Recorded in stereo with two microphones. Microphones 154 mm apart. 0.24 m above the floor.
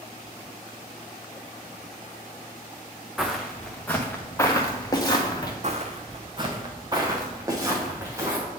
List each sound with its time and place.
3.2 s footsteps: centre (ahead or behind), 1.2 m; by 5.5 s 25° left (ahead or behind), 2 m
5.6 s footsteps: 50° right (ahead or behind), 0.9 m; by 8.4 s 20° right (ahead or behind), 3.5 m